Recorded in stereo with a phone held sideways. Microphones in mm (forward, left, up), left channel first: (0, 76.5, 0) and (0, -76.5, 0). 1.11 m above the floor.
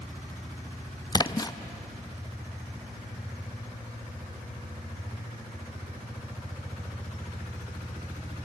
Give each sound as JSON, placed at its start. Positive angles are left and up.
{"t": 1.1, "sound": "a splash", "side_deg": 25, "distance_m": 0.5}